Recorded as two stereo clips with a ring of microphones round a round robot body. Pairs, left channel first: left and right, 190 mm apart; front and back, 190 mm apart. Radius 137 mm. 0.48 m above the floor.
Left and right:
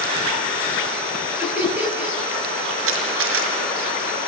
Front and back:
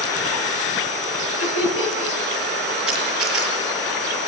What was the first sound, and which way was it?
Laughter, 10° right.